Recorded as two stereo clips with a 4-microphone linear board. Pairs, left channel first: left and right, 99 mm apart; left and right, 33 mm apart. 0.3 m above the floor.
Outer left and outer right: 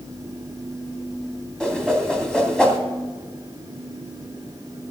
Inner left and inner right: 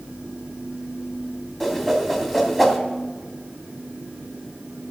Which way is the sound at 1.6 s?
5° left (ahead or behind).